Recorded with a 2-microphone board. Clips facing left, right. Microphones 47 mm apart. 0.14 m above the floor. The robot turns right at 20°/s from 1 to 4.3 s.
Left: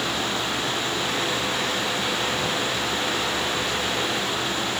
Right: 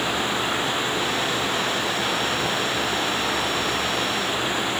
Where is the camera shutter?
No camera shutter in this recording.